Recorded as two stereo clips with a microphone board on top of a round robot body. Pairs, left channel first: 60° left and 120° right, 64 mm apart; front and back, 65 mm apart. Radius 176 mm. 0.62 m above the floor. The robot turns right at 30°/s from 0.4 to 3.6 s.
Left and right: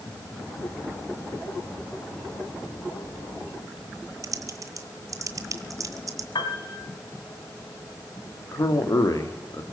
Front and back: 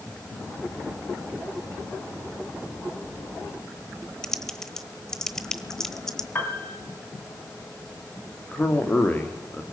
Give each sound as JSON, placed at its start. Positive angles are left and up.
{"t": 4.2, "sound": "typing on a keyboard", "azimuth_deg": -80, "distance_m": 1.2}
{"t": 6.3, "sound": "a piano", "azimuth_deg": 60, "distance_m": 2.5}
{"t": 8.5, "sound": "a man speaking", "azimuth_deg": 60, "distance_m": 2.5}